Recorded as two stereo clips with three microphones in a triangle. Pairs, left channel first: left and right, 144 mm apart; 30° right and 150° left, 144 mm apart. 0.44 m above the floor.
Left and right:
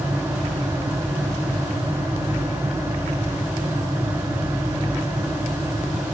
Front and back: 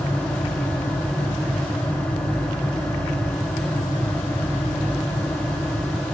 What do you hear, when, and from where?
Only background noise.